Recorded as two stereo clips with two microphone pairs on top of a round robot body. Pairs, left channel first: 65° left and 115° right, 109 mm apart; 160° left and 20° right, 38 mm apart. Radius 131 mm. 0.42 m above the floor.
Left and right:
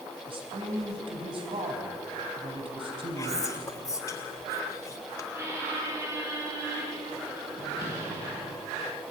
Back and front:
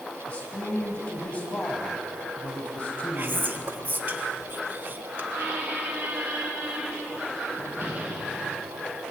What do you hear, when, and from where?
0.3 s a man speaking: 150° right, 4.5 m
3.2 s whispering: 5° left, 2.5 m
5.3 s a squeak: 45° right, 5.5 m